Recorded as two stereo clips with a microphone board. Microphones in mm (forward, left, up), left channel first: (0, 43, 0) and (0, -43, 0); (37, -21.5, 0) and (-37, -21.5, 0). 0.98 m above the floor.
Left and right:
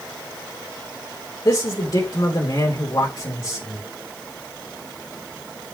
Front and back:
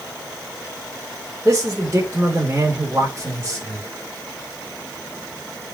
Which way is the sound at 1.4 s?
120° left.